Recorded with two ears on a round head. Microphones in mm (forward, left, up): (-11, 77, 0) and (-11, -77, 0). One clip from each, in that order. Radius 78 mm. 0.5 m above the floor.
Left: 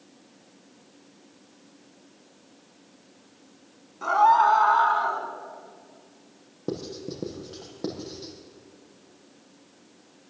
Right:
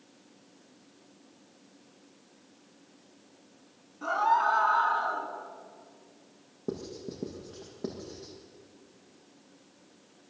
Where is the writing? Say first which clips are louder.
Left 4 dB; 65° left (ahead or behind), 6.5 m.